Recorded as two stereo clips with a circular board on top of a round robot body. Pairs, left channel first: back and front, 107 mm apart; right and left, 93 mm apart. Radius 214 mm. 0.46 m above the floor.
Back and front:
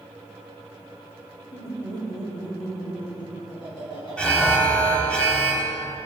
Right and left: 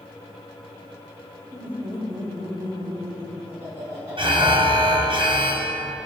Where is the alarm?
105° left, 1.4 m.